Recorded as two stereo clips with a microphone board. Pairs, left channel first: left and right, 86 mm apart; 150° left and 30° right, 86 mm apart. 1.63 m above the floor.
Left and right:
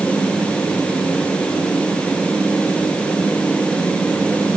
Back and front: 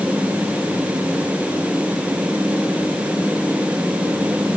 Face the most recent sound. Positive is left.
No sound to turn to.